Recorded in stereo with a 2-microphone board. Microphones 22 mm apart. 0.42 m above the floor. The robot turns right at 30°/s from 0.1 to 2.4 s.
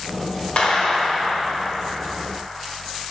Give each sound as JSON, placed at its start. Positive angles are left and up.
{"t": 0.6, "sound": "a clap", "azimuth_deg": 85, "distance_m": 1.5}